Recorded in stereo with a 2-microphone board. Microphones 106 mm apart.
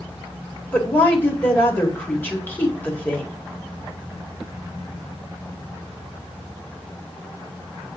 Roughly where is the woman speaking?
Centre.